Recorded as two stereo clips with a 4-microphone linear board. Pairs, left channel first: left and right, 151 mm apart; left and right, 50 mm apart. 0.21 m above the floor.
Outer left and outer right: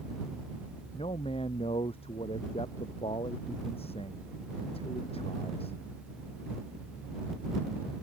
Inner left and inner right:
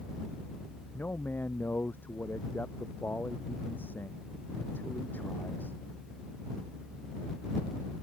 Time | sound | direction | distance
0.9 | a man speaking | 40° left (ahead or behind) | ?